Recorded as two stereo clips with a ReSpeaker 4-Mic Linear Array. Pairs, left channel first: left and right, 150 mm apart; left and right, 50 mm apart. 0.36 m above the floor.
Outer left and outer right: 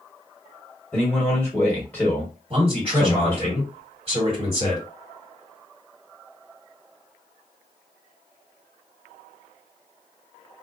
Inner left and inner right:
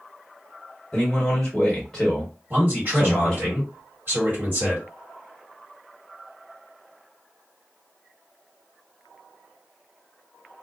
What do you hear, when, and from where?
0.9 s a man speaking: 10° left (ahead or behind), 1.3 m
2.5 s a man speaking: 40° right (ahead or behind), 1.7 m